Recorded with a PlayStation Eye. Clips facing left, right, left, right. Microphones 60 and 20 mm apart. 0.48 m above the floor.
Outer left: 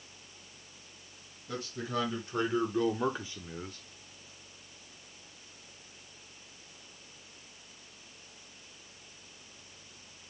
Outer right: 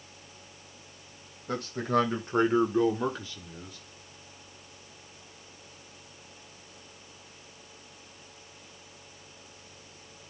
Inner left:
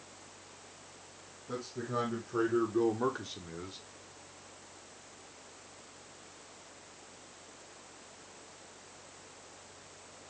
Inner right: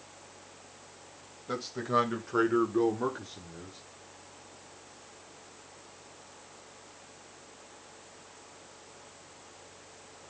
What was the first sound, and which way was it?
A man speaking, 60° right (ahead or behind).